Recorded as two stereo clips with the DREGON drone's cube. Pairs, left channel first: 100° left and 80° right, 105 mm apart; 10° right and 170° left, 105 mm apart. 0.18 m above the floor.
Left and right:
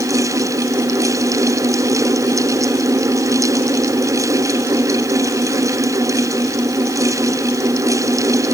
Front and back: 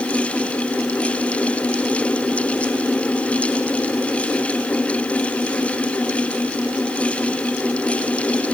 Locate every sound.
Only background noise.